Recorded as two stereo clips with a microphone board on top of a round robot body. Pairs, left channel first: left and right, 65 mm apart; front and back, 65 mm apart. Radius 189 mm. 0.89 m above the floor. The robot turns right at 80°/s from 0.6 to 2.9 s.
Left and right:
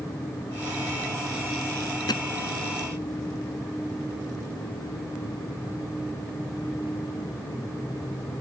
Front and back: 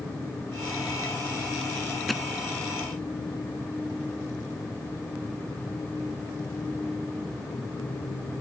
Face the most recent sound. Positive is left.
turn(degrees=150)